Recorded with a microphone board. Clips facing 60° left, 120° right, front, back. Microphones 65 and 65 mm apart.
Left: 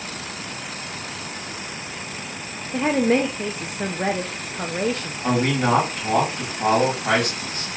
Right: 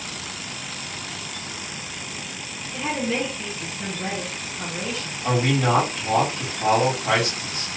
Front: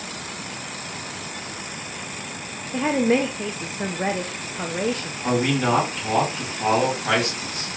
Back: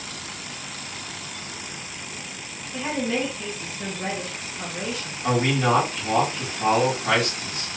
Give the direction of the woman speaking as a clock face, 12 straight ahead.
11 o'clock.